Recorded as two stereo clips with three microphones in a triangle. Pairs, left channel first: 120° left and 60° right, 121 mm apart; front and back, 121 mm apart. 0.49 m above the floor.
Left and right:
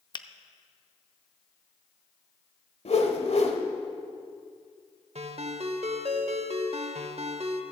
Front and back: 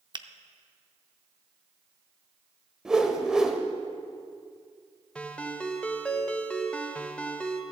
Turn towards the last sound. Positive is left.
turn(degrees=-80)